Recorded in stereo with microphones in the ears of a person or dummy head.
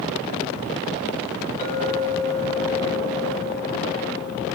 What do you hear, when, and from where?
1.6 s a clink: 45° left (ahead or behind), 5.5 m